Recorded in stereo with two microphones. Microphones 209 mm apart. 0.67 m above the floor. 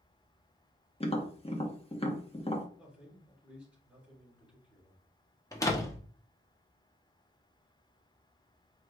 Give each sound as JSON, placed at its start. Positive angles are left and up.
{"t": 1.0, "sound": "tapping", "side_deg": 30, "distance_m": 0.8}
{"t": 2.8, "sound": "a man speaking", "side_deg": -5, "distance_m": 3.0}
{"t": 5.5, "sound": "a door slam", "side_deg": 15, "distance_m": 0.8}